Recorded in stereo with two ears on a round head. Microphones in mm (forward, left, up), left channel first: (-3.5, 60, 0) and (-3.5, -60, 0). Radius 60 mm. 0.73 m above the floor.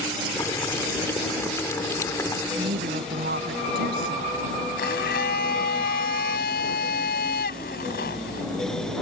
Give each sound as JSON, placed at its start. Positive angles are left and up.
{"t": 0.3, "sound": "boiling", "side_deg": 20}
{"t": 2.6, "sound": "a woman speaking", "side_deg": -80}
{"t": 4.8, "sound": "a blender", "side_deg": 80}